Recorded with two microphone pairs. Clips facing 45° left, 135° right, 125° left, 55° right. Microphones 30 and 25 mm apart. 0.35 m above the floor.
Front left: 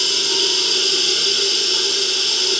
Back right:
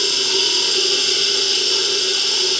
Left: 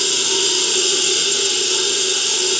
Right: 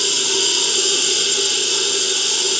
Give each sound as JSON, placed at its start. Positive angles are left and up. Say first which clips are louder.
{"t": 0.0, "sound": "running water", "louder": "even, even", "azimuth_deg": -140, "distance_m": 1.2}